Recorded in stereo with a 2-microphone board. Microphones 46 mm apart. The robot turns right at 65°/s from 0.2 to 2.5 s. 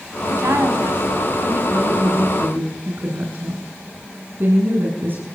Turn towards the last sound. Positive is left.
turn(degrees=-45)